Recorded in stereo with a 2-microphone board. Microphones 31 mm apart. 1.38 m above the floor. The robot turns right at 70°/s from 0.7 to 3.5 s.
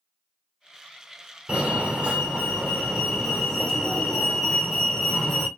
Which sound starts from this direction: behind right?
A fire alarm, at 1.5 s.